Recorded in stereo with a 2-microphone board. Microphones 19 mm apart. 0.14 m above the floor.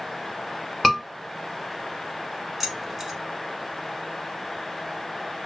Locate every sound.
0.8 s a scream: 10° left (ahead or behind), 1.4 m
2.6 s keys jangling: 20° right (ahead or behind), 0.8 m